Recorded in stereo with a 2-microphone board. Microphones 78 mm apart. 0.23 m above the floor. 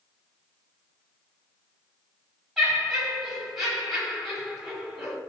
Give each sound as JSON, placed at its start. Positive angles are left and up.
{"t": 2.6, "sound": "laughter", "side_deg": 0, "distance_m": 1.4}